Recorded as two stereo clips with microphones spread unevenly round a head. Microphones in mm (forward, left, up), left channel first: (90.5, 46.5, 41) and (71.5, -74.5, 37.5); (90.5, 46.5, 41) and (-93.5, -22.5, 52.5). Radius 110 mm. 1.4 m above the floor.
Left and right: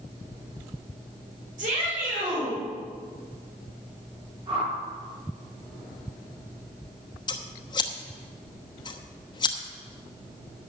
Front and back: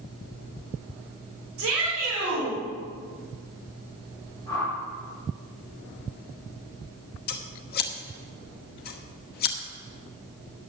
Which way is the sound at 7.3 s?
50° left.